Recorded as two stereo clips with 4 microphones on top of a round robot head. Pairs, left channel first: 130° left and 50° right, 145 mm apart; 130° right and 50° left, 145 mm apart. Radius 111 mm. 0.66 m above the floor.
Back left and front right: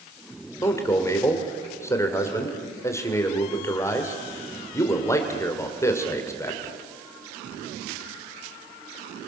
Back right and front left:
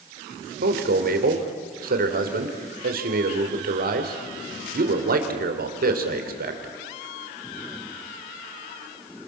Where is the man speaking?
60° left, 2.5 m.